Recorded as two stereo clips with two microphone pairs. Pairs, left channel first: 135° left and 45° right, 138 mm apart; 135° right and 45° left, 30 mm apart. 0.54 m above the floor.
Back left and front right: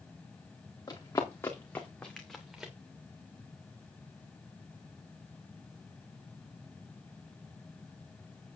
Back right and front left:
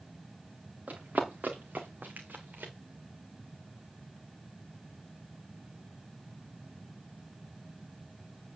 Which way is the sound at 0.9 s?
70° left.